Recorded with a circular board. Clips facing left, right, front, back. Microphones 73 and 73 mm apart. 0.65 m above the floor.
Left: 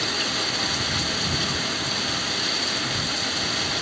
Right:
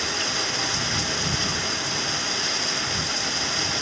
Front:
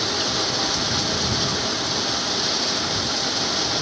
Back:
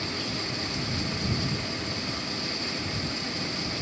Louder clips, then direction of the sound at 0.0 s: Even, front 8 dB; 5° right.